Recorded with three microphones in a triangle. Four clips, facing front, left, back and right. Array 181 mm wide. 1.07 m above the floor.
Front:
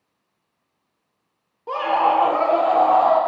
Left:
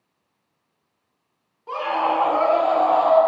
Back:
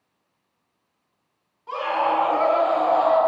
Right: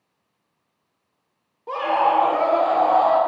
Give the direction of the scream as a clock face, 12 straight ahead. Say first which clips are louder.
Right 3 dB, front 4 dB; 1 o'clock.